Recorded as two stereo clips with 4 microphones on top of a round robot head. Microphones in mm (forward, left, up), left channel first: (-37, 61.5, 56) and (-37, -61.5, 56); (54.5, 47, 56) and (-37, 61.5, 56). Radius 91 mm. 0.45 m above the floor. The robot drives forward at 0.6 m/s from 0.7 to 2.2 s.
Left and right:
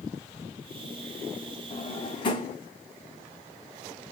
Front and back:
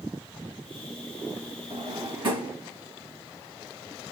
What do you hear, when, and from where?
1.7 s a drawer: 135° left, 1.7 m; by 2.6 s 140° left, 1.9 m